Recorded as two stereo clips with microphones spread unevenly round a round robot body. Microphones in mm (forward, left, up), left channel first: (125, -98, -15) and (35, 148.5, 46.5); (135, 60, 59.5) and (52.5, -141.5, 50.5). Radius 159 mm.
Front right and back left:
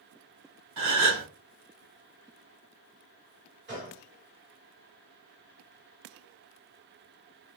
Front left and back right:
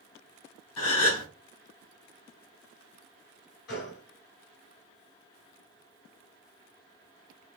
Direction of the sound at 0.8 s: 100° left.